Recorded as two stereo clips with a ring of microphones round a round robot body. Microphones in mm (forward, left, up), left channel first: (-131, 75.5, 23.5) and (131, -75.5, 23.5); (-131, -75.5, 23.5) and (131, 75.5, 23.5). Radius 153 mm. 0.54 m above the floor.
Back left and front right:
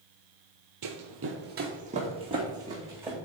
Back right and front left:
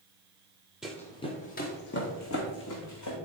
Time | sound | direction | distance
0.8 | running footsteps | 60° right | 1.0 m